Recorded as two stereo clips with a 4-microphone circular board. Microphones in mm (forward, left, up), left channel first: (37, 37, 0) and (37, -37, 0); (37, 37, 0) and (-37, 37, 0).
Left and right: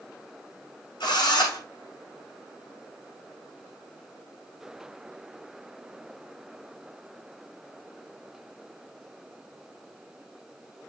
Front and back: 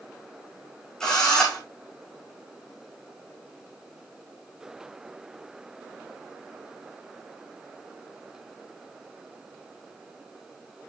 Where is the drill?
80° left, 6.5 m.